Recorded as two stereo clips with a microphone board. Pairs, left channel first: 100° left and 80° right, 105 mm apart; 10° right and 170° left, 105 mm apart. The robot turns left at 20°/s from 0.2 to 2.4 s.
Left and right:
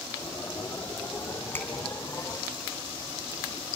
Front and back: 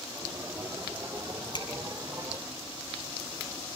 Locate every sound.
1.5 s a finger snap: 30° left, 3.5 m; by 1.7 s 25° left, 3.5 m